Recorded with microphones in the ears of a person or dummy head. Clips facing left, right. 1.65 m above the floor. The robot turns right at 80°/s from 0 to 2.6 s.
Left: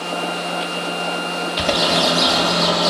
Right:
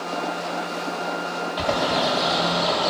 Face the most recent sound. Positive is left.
turn(degrees=60)  # may be behind; listen again after turning